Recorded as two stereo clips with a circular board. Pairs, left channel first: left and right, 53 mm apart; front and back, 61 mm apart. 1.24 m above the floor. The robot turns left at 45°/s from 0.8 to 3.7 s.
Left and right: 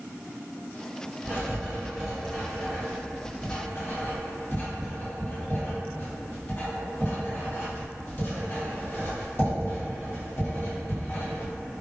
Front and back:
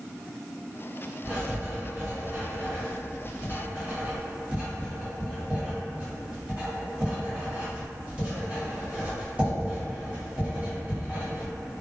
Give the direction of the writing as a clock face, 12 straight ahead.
4 o'clock.